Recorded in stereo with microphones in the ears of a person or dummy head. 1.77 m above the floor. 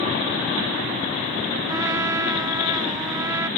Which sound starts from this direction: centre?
A trumpet, at 1.7 s.